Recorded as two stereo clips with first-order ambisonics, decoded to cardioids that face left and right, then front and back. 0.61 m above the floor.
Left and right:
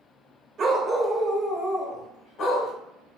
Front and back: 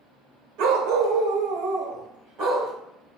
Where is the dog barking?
150° right, 0.7 m; by 2.7 s 135° left, 1.7 m.